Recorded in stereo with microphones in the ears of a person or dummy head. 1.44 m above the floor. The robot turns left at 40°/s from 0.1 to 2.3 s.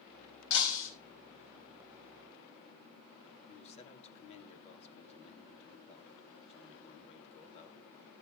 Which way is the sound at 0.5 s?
70° left (ahead or behind).